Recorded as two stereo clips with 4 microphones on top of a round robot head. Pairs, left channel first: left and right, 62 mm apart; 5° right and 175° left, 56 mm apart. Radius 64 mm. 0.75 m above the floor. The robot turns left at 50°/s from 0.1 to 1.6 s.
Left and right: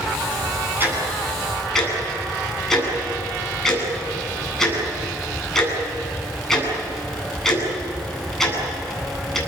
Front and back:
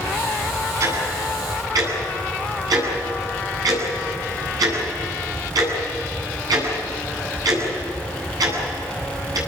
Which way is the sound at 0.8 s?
145° right.